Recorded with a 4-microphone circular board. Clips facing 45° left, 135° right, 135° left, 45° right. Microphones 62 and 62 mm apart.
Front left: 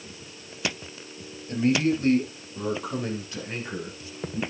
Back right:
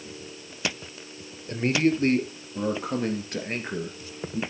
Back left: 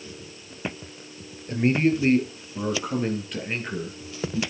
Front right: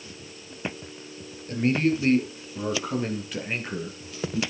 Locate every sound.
1.5 s a man speaking: 165° right, 2.5 m; by 4.4 s 115° right, 3 m